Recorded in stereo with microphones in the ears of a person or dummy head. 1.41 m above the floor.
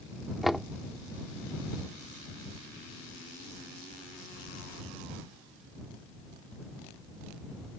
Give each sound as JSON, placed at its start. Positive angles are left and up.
{"t": 0.4, "sound": "knocking", "side_deg": 0}